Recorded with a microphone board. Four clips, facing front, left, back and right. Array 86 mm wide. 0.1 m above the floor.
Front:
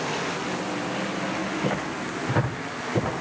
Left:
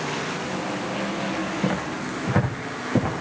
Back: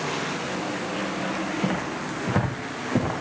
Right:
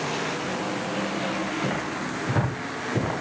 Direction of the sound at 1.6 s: 130° left.